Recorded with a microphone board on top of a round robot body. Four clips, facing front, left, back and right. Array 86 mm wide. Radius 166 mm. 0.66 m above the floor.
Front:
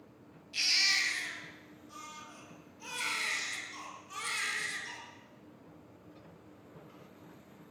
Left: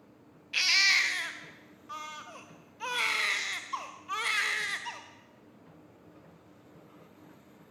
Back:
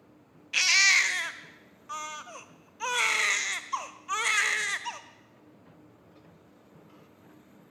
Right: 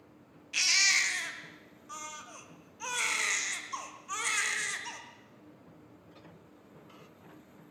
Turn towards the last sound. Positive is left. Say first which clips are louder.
# left 3 dB, back 10 dB
turn(degrees=165)